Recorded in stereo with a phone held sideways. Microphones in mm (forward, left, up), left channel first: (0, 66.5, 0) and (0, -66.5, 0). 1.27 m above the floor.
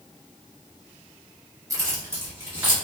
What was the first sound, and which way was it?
Keys jangling, 25° right (ahead or behind).